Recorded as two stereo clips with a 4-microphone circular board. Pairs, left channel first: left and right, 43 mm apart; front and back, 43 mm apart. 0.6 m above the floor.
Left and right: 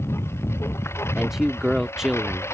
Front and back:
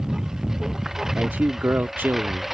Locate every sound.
0.0 s a lawn mower: 105° left; by 2.5 s 95° left
1.1 s a man speaking: 165° right